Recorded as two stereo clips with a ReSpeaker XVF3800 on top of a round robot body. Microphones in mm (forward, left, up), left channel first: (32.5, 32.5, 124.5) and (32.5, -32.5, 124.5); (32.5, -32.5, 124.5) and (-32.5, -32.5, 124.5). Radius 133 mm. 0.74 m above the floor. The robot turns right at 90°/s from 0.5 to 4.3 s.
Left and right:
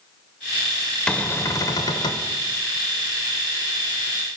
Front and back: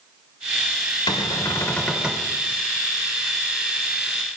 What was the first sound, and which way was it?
A cupboard door, 15° left.